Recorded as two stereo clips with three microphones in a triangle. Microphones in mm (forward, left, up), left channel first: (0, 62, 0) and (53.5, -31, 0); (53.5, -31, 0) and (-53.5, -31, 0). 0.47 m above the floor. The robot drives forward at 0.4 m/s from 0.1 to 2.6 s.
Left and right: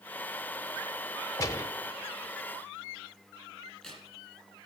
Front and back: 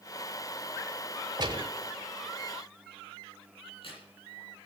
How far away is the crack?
About 9.5 m.